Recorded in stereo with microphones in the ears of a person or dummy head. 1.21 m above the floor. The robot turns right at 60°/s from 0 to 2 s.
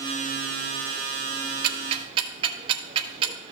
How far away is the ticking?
About 1.5 m.